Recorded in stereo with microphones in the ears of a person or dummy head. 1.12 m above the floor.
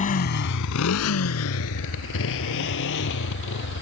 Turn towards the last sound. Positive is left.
turn(degrees=65)  # may be behind; listen again after turning